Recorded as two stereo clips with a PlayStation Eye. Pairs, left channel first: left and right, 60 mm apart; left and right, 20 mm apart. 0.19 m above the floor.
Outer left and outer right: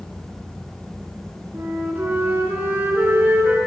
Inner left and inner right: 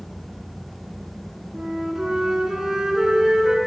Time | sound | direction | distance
1.5 | a flute | 35° right (ahead or behind) | 2 m